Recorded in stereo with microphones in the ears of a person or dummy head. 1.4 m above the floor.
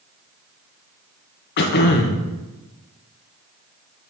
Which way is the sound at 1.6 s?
60° left (ahead or behind).